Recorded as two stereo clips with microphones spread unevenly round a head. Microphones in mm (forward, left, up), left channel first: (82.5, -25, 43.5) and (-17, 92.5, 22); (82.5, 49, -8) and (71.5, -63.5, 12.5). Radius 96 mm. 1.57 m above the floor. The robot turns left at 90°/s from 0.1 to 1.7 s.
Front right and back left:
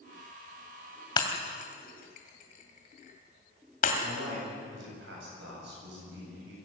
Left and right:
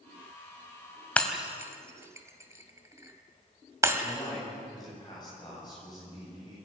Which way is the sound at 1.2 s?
Straight ahead.